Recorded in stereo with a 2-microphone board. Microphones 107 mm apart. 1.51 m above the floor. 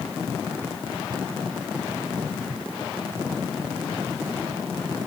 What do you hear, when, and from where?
Only background noise.